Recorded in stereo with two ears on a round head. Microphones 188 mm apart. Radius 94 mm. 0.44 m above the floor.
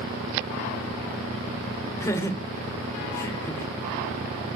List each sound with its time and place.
2.0 s laughter: 15° left (ahead or behind), 1.8 m